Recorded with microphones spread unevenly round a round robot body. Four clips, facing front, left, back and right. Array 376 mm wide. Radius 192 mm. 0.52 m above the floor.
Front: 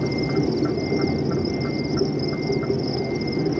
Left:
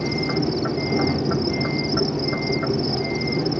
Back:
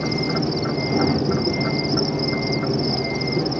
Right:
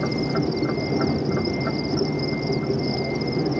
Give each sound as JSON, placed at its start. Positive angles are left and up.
{"t": 0.0, "sound": "an insect", "azimuth_deg": 25}